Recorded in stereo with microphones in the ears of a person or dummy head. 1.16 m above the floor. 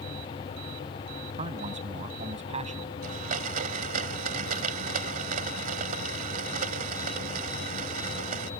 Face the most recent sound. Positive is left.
turn(degrees=-50)  # may be behind; listen again after turning